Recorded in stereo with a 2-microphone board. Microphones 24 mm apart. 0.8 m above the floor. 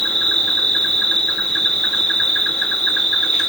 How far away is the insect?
About 0.7 m.